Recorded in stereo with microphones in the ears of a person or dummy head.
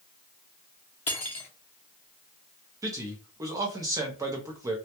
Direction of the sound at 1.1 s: 10° left (ahead or behind).